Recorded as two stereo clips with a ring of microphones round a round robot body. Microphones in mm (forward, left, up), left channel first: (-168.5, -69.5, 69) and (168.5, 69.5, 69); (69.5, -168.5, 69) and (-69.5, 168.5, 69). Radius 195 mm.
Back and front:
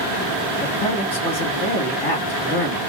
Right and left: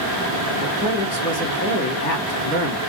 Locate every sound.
0.6 s a man speaking: 85° right, 1.4 m